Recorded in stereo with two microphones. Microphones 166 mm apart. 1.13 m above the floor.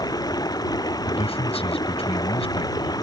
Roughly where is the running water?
Left.